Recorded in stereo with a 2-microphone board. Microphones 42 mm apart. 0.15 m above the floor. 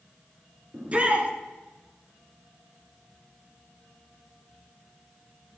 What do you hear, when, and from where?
0.7 s a shout: 30° right (ahead or behind), 1.9 m